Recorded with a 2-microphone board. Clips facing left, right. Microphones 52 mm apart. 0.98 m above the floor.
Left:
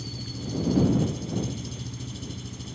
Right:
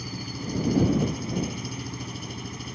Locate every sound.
0.0 s an engine running: 55° right (ahead or behind)